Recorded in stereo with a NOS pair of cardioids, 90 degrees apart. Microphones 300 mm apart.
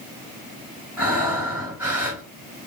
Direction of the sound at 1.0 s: 5° right.